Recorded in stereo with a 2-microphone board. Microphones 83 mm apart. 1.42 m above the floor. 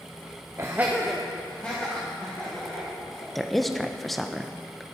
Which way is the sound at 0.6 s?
40° right (ahead or behind).